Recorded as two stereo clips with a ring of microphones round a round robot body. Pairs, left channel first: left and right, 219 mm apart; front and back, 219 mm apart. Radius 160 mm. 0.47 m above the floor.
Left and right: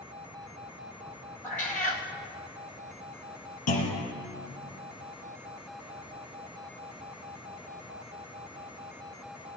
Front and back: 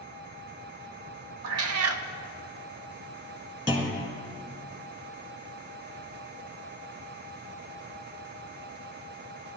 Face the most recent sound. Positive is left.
turn(degrees=105)